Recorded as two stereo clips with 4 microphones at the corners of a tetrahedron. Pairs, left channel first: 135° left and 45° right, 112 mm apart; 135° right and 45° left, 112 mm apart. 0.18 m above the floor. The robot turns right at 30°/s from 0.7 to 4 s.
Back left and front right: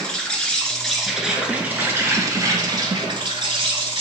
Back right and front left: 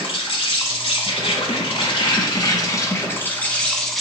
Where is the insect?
145° right, 0.8 m; by 4.0 s 45° right, 0.8 m.